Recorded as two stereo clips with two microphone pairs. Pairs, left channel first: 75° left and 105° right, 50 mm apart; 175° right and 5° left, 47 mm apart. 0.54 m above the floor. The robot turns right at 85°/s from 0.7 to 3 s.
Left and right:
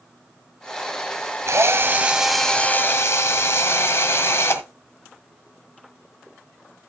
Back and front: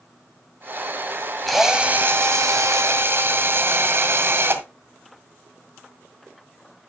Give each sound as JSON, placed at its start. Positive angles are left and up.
{"t": 1.5, "sound": "a drill", "azimuth_deg": -90, "distance_m": 1.8}